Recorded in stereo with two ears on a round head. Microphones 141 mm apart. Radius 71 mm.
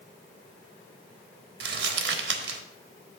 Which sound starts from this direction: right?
Crumpling, at 1.6 s.